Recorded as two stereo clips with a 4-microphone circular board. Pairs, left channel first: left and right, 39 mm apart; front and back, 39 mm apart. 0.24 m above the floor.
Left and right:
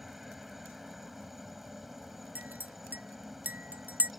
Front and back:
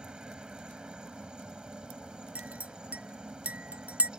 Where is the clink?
130° right.